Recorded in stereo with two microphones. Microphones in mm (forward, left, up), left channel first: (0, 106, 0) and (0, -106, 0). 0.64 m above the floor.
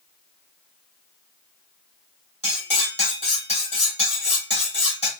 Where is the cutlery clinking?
30° left (ahead or behind), 2.0 m.